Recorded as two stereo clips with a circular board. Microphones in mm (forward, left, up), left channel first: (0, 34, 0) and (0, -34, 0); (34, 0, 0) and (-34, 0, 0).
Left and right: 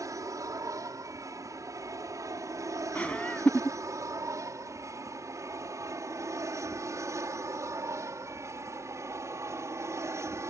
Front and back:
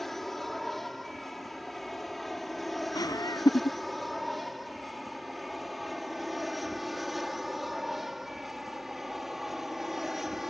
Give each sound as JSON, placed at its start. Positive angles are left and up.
{"t": 0.0, "sound": "an aircraft", "azimuth_deg": -85}
{"t": 3.0, "sound": "laughter", "azimuth_deg": 20}